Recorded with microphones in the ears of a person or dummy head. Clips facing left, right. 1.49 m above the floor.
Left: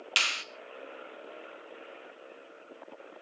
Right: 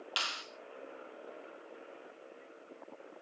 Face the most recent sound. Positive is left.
turn(degrees=35)  # may be behind; listen again after turning